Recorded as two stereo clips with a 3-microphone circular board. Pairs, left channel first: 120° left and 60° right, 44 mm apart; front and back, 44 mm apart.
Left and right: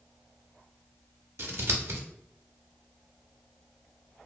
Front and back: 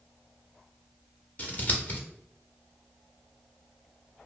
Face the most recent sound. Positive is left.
turn(degrees=-45)